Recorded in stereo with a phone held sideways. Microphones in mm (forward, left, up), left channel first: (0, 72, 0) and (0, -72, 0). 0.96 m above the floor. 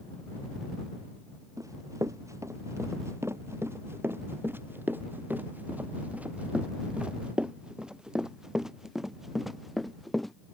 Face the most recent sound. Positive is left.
turn(degrees=0)  # may be behind; listen again after turning